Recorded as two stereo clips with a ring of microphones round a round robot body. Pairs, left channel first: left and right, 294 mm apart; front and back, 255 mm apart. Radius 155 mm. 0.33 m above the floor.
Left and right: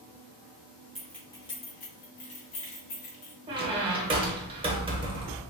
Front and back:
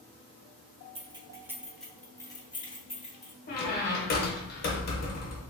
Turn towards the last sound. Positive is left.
turn(degrees=-25)